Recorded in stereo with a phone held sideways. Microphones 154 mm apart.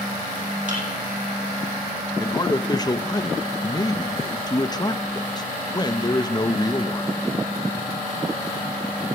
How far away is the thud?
About 8 m.